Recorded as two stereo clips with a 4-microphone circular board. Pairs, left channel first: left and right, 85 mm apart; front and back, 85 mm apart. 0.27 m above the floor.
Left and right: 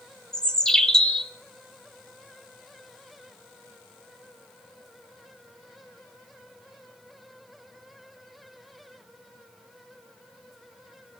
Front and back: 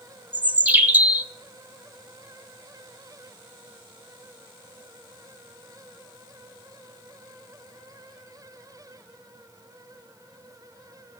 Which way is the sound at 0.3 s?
155° left.